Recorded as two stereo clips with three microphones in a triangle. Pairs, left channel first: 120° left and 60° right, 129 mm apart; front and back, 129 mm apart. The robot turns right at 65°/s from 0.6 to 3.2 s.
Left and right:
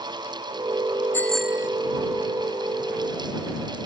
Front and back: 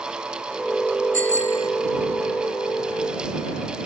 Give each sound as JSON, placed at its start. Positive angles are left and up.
{"t": 1.1, "sound": "a bicycle bell", "azimuth_deg": -165}